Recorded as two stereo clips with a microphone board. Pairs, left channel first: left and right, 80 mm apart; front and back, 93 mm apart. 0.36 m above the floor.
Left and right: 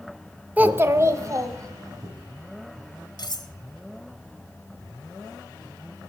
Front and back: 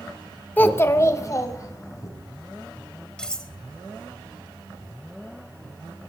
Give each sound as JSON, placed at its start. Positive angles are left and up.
{"t": 0.6, "sound": "a child speaking", "azimuth_deg": -45, "distance_m": 0.6}
{"t": 3.2, "sound": "cutlery clinking", "azimuth_deg": 80, "distance_m": 1.0}